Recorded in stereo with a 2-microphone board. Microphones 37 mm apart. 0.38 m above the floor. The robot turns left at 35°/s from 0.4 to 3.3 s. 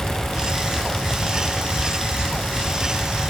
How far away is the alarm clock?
I don't hear an alarm clock.